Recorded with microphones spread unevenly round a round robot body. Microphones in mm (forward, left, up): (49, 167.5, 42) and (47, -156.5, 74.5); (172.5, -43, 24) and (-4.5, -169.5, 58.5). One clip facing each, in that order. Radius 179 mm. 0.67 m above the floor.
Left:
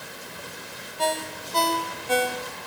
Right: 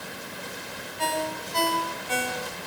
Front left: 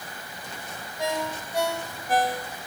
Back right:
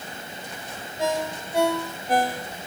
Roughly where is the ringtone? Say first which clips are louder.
Left 1 dB, back right 3 dB; behind left.